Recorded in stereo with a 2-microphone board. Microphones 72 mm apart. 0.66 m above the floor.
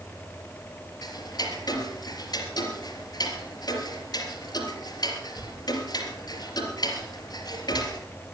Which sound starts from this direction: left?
Ticking, at 1.0 s.